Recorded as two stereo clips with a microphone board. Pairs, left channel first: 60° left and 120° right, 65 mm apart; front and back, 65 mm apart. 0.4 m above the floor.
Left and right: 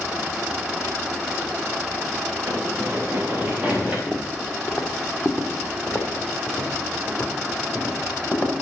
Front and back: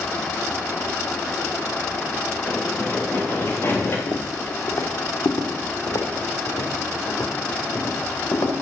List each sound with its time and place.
2.5 s running footsteps: 65° right, 4 m; by 4.0 s 45° right, 3 m
4.1 s footsteps: 20° right, 1.2 m; by 8.5 s 15° right, 3.5 m